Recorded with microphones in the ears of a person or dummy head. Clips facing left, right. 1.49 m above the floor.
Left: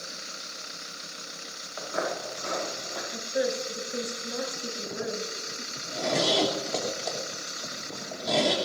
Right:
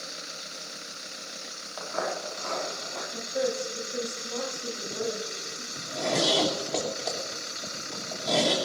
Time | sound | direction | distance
1.8 | footsteps | 25° left (ahead or behind) | 5.5 m
3.1 | a woman speaking | 20° left (ahead or behind) | 7 m
5.8 | a zipper | centre (ahead or behind) | 3.5 m